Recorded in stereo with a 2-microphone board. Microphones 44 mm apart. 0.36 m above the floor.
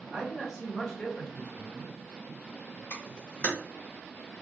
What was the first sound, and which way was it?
A man speaking, 15° right (ahead or behind).